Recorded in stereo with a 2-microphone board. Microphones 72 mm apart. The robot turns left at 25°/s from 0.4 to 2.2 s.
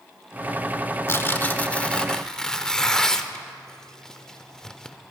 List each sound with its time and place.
1.1 s tearing paper: 35° left (ahead or behind), 0.7 m; by 5.0 s 10° left (ahead or behind), 0.7 m